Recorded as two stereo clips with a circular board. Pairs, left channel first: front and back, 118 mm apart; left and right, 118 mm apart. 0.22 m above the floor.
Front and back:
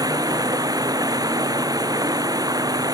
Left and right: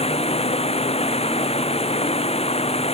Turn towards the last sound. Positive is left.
turn(degrees=120)